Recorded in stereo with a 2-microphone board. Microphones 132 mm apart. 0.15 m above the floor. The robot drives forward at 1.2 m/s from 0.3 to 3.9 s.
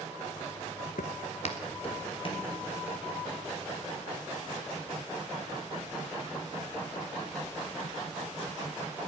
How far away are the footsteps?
About 0.7 m.